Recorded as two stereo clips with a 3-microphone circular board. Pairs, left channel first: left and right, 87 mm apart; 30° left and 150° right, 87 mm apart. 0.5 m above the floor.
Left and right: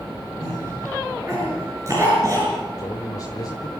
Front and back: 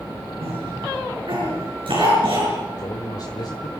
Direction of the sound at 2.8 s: 55° left.